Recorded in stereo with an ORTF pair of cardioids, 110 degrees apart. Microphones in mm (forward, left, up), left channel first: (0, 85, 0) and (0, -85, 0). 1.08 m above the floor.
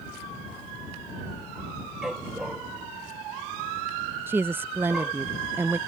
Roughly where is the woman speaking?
Ahead.